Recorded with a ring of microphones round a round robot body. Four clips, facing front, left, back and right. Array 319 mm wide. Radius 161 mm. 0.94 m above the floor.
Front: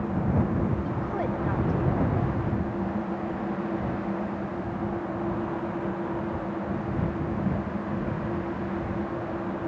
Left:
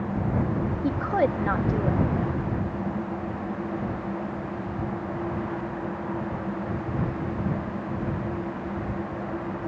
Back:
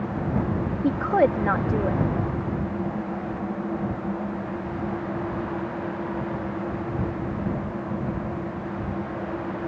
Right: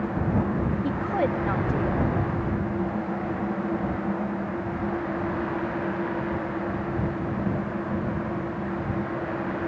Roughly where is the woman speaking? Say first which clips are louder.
Left 4 dB, back 9 dB; behind.